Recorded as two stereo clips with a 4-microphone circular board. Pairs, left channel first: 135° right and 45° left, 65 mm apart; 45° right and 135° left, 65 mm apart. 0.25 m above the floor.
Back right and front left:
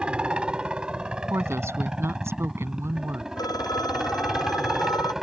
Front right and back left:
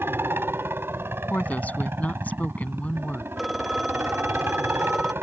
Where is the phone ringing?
135° right.